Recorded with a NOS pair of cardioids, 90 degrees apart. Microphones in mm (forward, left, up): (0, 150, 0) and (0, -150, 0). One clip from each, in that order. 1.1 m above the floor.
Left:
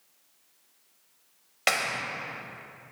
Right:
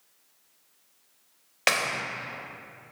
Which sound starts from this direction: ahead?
A clap, at 1.7 s.